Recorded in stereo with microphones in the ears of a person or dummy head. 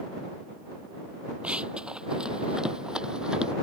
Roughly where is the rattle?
I don't hear a rattle.